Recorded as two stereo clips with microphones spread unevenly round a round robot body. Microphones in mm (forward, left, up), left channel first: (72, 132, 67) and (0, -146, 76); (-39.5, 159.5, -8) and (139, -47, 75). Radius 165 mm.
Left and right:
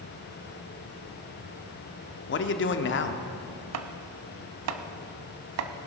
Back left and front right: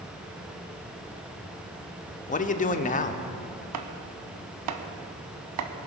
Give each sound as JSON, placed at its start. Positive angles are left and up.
{"t": 2.3, "sound": "a man speaking", "azimuth_deg": 105, "distance_m": 1.0}
{"t": 3.7, "sound": "chopping", "azimuth_deg": -70, "distance_m": 0.8}